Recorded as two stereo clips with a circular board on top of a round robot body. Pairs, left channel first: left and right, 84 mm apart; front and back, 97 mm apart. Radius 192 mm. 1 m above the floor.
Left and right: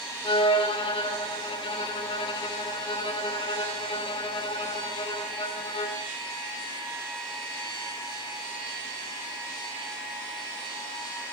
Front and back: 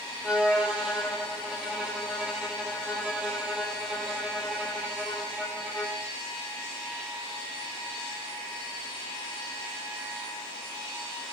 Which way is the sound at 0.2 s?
100° left.